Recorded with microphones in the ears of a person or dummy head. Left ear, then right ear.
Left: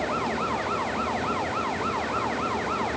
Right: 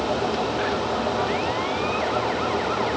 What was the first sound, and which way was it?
Only background noise.